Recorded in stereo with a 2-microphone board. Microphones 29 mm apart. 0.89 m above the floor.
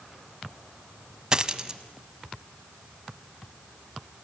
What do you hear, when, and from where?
1.3 s a dropped coin: 25° right (ahead or behind), 1.1 m